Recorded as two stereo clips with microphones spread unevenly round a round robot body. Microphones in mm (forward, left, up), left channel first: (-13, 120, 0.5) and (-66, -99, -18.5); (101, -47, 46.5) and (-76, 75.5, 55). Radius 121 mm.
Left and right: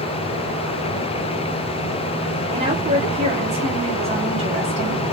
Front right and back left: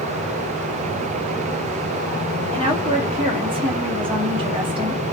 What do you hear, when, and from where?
2.5 s a woman speaking: 150° right, 1.1 m